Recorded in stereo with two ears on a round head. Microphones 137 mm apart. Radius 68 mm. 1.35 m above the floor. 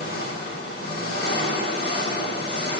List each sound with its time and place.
0.0 s an engine running: 35° left (ahead or behind), 6 m